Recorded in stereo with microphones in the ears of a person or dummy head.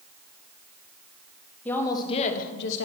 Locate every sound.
1.6 s a woman speaking: 15° left (ahead or behind), 1.5 m; by 2.9 s 80° left, 1.2 m